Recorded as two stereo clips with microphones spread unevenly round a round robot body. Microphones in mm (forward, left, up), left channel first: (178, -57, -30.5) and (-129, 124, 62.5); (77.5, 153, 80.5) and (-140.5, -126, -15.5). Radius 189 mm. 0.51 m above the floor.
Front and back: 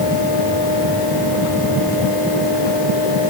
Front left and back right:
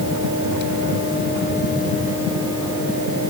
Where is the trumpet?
I don't hear a trumpet.